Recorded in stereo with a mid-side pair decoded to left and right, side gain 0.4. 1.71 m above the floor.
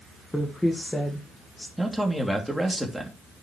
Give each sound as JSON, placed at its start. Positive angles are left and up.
{"t": 0.3, "sound": "a woman speaking", "azimuth_deg": 10, "distance_m": 1.8}
{"t": 1.8, "sound": "a man speaking", "azimuth_deg": 0, "distance_m": 3.0}